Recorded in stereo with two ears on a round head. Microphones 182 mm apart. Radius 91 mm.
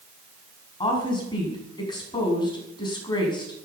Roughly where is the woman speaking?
Left.